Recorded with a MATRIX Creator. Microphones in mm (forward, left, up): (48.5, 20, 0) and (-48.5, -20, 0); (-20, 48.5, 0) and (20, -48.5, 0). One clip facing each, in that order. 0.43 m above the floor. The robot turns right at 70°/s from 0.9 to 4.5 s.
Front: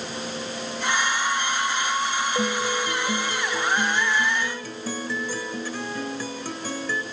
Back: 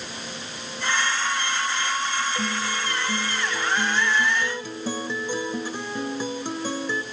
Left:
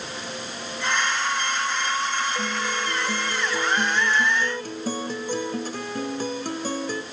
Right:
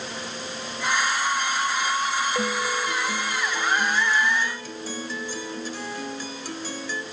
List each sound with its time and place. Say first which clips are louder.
2.4 s a guitar: front 3 dB, right 2 dB; 10° right, 1.8 m; by 7.0 s 140° left, 1.8 m